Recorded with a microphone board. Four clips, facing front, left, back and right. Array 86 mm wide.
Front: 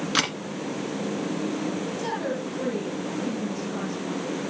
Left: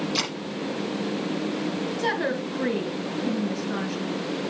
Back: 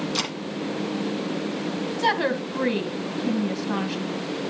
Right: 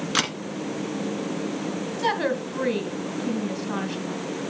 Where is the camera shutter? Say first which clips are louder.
Right 3 dB, front 3 dB; 55° right, 2.5 m.